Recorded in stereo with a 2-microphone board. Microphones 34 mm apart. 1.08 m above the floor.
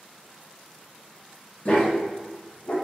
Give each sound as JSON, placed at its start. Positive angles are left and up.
{"t": 1.6, "sound": "a dog barking", "side_deg": 40, "distance_m": 0.6}